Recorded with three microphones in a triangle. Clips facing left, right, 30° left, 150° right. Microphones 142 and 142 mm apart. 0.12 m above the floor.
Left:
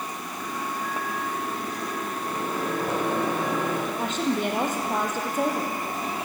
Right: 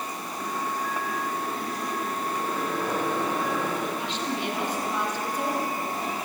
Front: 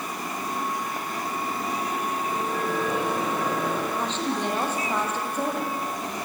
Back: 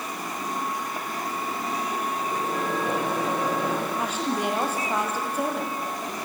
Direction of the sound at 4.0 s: 130° left.